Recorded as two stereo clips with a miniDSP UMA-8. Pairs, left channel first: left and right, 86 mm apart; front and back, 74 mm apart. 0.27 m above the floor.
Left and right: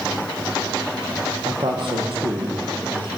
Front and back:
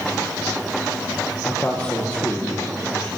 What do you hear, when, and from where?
1.4 s a man speaking: 75° right, 8 m